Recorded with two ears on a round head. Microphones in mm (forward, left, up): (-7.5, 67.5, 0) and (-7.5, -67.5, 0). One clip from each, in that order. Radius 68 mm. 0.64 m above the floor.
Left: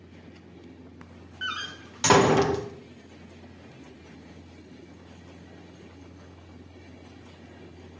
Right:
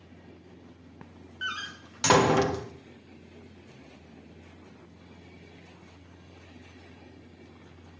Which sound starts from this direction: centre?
A door slam, at 1.4 s.